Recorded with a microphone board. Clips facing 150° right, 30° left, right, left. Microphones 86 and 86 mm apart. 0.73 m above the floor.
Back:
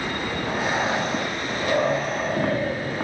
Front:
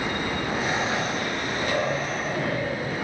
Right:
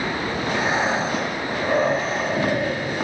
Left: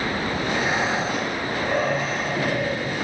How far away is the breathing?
About 1.6 m.